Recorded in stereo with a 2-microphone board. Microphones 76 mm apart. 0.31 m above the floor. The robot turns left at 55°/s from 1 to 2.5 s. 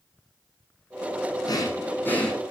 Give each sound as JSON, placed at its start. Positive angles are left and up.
{"t": 1.5, "sound": "breathing", "azimuth_deg": 60, "distance_m": 6.0}